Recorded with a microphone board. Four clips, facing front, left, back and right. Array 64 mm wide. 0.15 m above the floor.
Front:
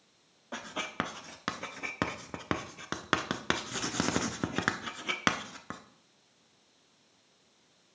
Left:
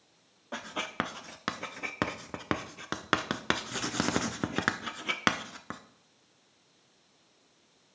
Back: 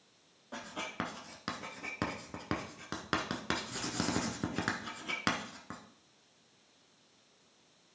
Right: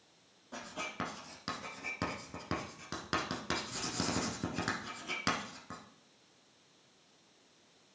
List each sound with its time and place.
0.5 s writing: 55° left, 0.6 m